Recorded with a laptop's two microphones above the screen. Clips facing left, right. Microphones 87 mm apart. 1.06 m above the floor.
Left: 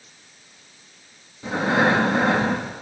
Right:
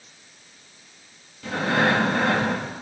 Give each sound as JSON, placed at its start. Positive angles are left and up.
{"t": 1.4, "sound": "breathing", "side_deg": 15, "distance_m": 1.5}